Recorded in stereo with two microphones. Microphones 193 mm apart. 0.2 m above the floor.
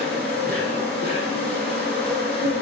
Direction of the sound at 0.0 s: 60° right (ahead or behind).